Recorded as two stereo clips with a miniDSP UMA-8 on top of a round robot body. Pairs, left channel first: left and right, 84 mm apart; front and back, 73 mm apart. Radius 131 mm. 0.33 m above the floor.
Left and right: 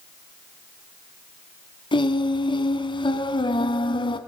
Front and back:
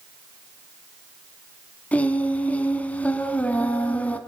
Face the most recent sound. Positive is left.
turn(degrees=70)